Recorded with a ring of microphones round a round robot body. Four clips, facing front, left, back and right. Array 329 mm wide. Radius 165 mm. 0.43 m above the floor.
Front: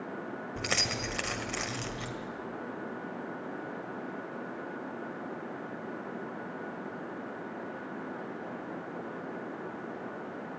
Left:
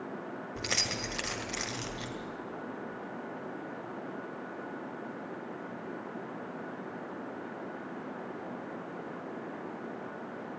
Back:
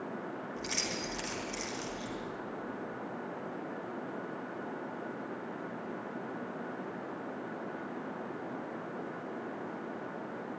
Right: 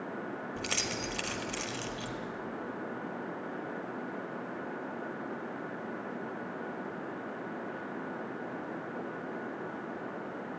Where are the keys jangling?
15° left, 1.5 m.